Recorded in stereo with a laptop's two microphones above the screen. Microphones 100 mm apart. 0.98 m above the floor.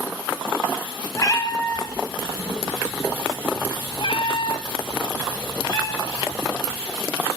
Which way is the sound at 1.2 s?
30° left (ahead or behind).